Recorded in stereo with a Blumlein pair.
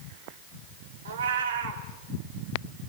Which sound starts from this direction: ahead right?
A cat meowing, at 1.1 s.